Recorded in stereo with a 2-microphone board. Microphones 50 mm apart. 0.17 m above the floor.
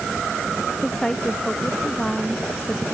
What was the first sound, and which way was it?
A woman speaking, 10° left (ahead or behind).